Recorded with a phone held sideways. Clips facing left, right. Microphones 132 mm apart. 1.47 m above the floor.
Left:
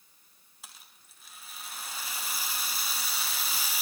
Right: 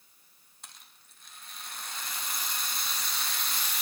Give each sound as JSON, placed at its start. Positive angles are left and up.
{"t": 0.6, "sound": "a rattle", "side_deg": 5, "distance_m": 1.5}